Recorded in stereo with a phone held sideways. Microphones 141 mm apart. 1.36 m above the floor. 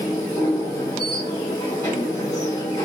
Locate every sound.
0.0 s a machine running: 25° left (ahead or behind), 1.1 m